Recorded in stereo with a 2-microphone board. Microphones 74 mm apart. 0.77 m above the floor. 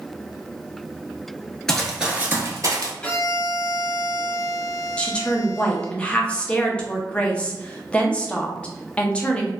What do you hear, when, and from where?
1.7 s running footsteps: 10° left (ahead or behind), 0.8 m; by 2.9 s 50° right (ahead or behind), 1.1 m
3.0 s a violin: 15° left (ahead or behind), 0.7 m
5.0 s a woman speaking: 15° left (ahead or behind), 0.6 m